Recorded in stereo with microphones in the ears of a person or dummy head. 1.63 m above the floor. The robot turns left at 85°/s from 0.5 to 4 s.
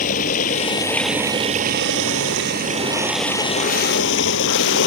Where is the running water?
50° left; by 4.9 s 115° left.